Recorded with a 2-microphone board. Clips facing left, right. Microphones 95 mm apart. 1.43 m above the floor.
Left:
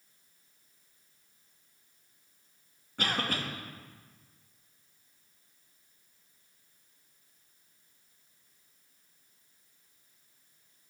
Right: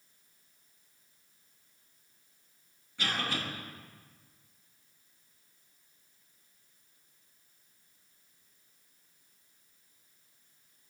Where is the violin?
I don't hear a violin.